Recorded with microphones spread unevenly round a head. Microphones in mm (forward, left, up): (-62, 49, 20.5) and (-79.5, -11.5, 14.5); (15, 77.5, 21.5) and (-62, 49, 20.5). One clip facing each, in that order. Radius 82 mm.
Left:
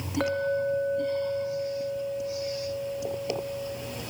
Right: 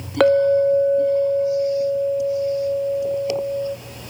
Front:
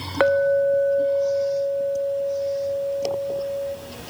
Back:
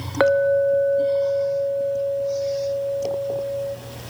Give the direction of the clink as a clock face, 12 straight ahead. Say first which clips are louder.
Right 13 dB, back 1 dB; 2 o'clock.